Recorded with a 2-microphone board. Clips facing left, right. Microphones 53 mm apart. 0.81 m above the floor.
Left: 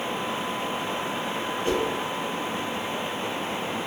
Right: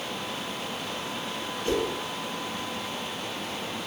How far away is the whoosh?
About 1.4 m.